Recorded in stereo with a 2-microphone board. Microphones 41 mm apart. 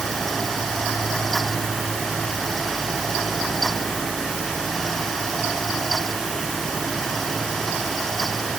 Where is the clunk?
I don't hear a clunk.